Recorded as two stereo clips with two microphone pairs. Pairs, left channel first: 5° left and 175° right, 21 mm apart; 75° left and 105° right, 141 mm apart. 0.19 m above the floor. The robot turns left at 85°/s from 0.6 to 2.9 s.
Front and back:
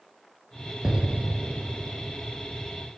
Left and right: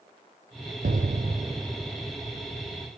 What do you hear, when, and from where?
0.8 s an explosion: 115° right, 0.5 m; by 2.1 s 135° left, 0.5 m